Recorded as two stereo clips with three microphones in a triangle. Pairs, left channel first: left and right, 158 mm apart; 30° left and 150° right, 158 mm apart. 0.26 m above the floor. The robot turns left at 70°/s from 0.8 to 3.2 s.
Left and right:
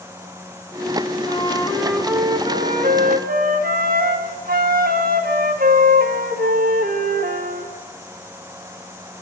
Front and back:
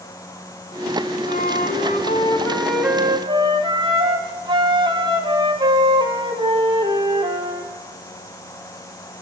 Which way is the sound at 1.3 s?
45° left.